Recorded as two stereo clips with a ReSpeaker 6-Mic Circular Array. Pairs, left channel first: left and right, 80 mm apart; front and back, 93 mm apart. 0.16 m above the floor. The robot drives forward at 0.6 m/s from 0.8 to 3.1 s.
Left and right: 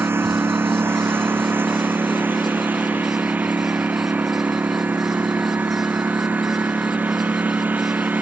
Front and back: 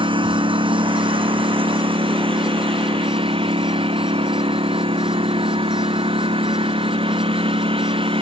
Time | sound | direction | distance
0.0 | a lawn mower | 155° right | ?